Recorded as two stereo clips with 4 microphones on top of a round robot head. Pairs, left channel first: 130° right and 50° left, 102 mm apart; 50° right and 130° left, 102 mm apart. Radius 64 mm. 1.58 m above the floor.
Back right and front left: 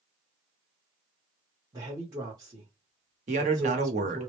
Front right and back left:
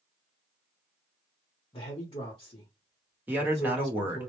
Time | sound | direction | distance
1.7 | a man speaking | straight ahead | 0.8 m
3.3 | a man speaking | 55° left | 1.0 m